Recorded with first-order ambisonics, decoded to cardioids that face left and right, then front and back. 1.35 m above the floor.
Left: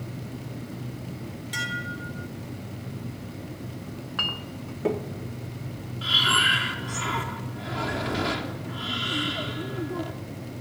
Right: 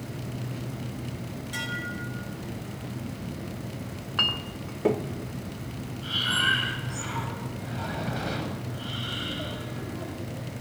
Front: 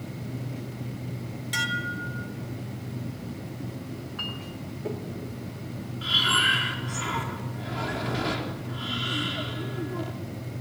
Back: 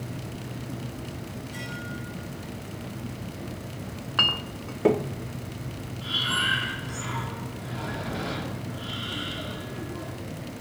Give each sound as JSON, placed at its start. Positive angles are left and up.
{"t": 1.5, "sound": "dishes clattering", "azimuth_deg": 20, "distance_m": 3.5}
{"t": 3.9, "sound": "a clink", "azimuth_deg": -170, "distance_m": 0.6}
{"t": 6.0, "sound": "breathing", "azimuth_deg": 65, "distance_m": 3.5}